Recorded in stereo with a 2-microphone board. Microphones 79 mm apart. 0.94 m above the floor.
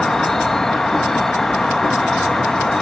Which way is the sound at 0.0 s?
5° left (ahead or behind).